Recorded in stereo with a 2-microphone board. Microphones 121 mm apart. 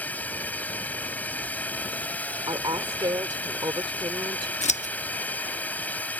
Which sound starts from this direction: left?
Scissors, at 4.6 s.